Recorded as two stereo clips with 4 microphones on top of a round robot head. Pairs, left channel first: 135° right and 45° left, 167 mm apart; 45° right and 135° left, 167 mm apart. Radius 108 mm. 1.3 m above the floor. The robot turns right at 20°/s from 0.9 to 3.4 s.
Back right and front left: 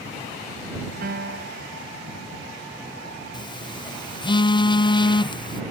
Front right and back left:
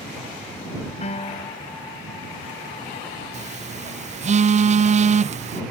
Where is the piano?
5° left; by 1.7 s 20° left.